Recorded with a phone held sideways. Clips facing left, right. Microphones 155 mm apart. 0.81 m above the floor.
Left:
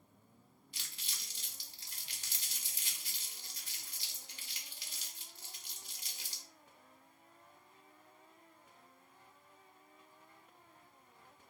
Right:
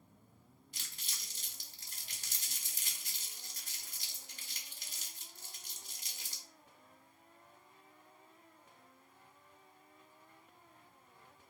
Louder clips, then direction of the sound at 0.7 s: Even; 40° right (ahead or behind).